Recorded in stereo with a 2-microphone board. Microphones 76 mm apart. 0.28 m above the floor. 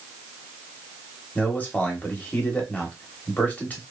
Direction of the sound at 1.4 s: 25° left (ahead or behind).